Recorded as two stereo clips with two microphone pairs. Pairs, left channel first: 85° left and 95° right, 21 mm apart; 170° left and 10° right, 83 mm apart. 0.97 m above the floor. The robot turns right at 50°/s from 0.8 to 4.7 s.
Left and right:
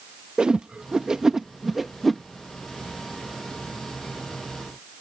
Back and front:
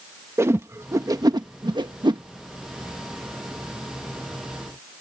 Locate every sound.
0.4 s a whoosh: 60° right; by 2.2 s 10° left